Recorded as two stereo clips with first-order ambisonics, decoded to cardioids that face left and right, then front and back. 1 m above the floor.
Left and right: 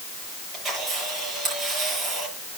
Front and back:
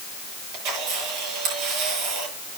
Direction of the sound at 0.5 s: 170° right.